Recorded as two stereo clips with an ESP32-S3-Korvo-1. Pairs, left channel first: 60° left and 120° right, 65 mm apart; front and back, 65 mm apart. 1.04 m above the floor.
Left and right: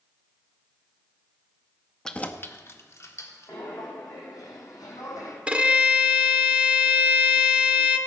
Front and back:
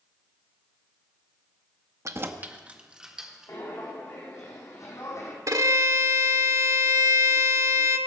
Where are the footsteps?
40° left, 4 m; by 5.4 s 35° left, 3 m.